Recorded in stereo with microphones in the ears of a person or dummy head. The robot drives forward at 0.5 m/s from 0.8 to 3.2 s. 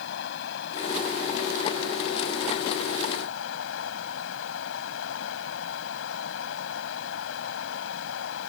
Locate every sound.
0.0 s running water: 75° left (ahead or behind); by 8.5 s 85° left